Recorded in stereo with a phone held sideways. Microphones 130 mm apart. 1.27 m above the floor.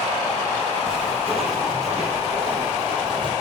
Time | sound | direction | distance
0.9 | footsteps | 45° right (ahead or behind) | 2.5 m